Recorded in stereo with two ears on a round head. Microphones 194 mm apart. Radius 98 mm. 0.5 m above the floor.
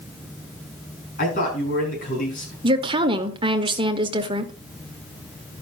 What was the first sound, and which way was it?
A man speaking, 40° left (ahead or behind).